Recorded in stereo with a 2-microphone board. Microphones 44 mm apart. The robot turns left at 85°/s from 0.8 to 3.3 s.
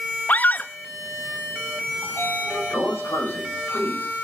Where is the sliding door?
155° left, 6 m; by 4.1 s 50° left, 6 m.